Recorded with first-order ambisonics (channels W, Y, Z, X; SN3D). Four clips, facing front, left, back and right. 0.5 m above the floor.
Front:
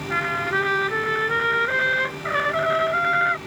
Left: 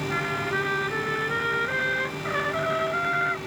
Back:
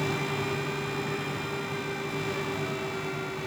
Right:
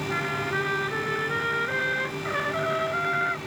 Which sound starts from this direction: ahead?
A trumpet, at 0.1 s.